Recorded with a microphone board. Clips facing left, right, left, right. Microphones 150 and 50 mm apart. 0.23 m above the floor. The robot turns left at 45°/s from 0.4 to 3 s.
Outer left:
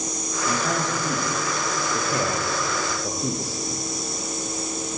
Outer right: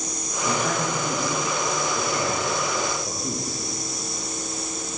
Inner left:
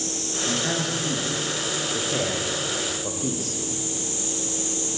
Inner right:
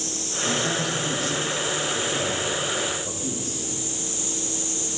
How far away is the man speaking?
About 9 m.